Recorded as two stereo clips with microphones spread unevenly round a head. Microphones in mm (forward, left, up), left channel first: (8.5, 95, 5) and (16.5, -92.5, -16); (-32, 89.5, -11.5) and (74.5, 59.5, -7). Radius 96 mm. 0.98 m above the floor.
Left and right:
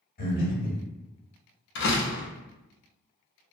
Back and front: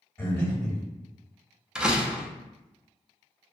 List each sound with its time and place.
0.2 s breathing: 95° left, 1.0 m
1.8 s a door slam: 70° left, 0.6 m